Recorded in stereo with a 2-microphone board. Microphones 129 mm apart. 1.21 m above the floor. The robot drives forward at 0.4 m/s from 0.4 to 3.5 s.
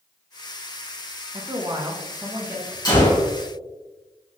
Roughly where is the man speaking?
Right.